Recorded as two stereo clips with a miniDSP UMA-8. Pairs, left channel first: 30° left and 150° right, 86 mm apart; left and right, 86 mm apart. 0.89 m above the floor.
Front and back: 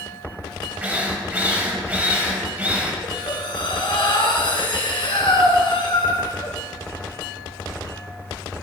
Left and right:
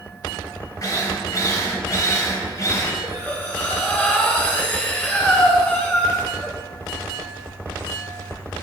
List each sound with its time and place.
0.8 s a drill: 140° left, 3 m
3.0 s breathing: 20° left, 3 m